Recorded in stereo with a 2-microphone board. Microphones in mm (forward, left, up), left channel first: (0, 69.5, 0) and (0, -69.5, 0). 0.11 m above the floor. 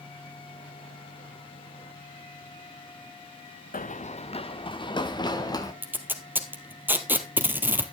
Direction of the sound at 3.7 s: 80° left.